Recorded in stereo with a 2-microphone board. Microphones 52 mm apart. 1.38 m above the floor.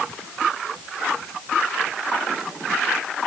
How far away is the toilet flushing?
I don't hear a toilet flushing.